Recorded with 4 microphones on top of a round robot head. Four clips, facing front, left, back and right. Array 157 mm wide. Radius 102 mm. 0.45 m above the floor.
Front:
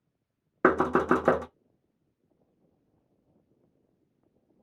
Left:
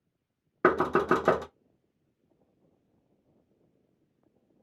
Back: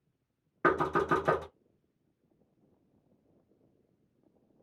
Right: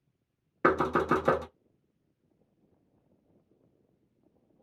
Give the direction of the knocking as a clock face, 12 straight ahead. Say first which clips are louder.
Left 2 dB, front 5 dB; 11 o'clock.